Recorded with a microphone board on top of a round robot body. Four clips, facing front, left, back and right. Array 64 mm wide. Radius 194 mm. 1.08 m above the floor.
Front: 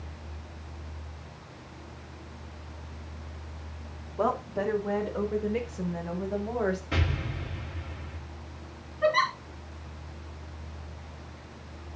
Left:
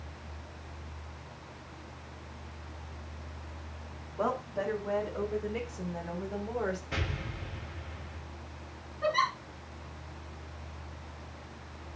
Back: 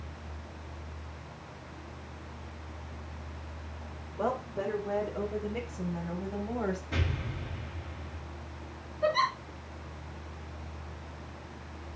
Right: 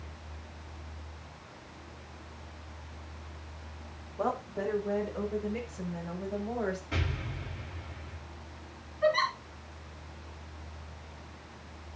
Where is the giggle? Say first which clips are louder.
Right 2 dB, front 3 dB; 5° right, 4.5 m.